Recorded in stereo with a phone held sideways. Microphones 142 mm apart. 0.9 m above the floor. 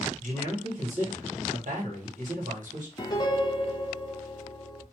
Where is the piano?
30° left (ahead or behind), 0.6 m.